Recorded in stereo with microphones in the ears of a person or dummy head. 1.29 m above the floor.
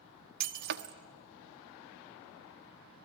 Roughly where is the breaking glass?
Right.